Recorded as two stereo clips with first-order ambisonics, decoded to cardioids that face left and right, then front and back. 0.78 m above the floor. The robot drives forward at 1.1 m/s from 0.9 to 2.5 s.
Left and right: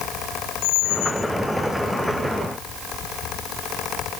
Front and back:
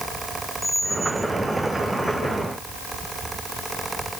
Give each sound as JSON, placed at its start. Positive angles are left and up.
{"t": 0.6, "sound": "a squeak", "azimuth_deg": 85, "distance_m": 0.6}